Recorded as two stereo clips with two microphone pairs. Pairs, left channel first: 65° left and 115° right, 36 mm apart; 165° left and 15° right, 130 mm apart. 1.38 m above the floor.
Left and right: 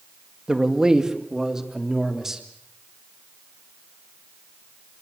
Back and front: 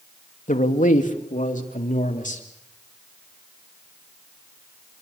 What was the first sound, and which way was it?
A man speaking, 175° left.